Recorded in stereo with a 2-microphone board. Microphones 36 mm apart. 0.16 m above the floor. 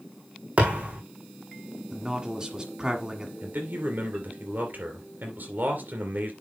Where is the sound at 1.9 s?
20° right (ahead or behind), 1.5 m.